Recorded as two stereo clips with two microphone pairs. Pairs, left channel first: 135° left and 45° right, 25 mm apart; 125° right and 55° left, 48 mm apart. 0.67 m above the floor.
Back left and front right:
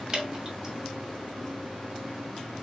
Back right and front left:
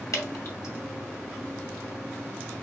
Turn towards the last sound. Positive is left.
turn(degrees=-110)